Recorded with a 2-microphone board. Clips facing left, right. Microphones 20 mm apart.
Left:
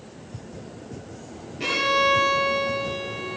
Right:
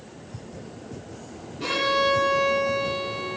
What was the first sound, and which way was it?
A violin, 45° left (ahead or behind).